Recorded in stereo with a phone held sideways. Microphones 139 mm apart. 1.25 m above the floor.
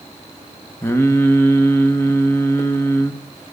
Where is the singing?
20° left (ahead or behind), 0.8 m.